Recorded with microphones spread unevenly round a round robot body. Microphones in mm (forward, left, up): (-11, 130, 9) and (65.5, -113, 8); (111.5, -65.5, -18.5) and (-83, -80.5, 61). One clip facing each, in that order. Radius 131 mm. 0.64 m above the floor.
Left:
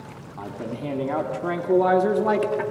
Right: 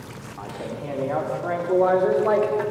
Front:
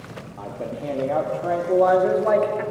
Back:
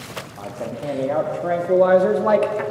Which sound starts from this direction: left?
A man speaking, at 0.4 s.